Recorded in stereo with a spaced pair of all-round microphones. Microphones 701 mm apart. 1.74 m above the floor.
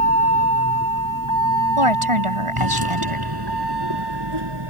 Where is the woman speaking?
45° right (ahead or behind).